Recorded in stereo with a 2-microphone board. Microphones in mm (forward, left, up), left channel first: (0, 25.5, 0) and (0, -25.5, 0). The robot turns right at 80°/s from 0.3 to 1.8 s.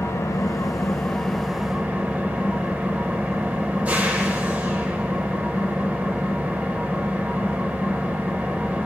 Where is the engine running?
90° left, 0.9 m; by 8.9 s 150° right, 0.9 m.